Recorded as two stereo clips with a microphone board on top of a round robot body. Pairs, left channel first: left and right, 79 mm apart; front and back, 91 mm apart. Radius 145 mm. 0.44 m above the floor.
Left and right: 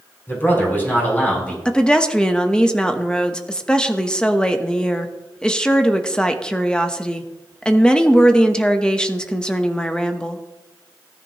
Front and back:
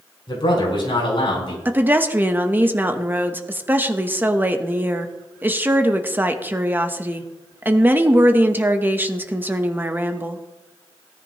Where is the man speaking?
30° left, 6 m; by 1.6 s 20° left, 5.5 m.